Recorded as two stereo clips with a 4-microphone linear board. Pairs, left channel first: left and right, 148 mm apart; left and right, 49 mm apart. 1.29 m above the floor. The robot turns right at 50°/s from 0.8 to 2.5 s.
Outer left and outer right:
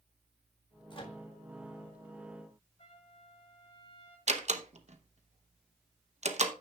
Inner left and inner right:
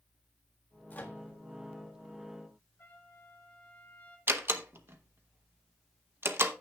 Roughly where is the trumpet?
Left.